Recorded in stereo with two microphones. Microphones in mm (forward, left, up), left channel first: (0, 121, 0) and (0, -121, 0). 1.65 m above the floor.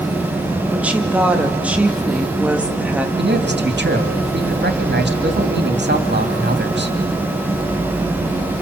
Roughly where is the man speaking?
Right.